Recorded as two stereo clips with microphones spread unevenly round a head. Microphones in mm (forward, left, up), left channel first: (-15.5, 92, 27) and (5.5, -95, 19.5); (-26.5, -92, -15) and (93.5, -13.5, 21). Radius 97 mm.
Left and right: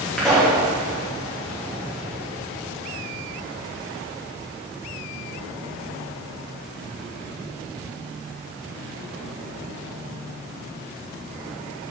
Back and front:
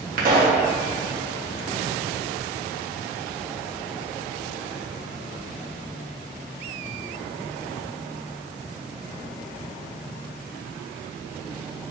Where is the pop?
10° left, 3 m.